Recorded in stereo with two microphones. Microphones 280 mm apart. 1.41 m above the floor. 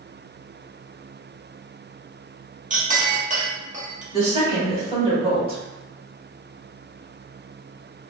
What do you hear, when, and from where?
2.7 s a clink: 25° right (ahead or behind), 0.7 m
4.1 s a woman speaking: 20° right (ahead or behind), 1.6 m